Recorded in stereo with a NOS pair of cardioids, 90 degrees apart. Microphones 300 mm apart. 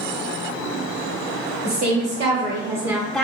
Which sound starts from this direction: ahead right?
A woman speaking, at 1.6 s.